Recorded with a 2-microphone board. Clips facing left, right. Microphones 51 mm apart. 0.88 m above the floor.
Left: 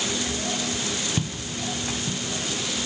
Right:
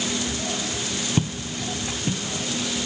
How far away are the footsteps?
About 1.1 m.